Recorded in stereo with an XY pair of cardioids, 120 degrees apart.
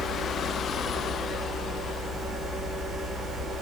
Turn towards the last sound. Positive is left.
turn(degrees=-35)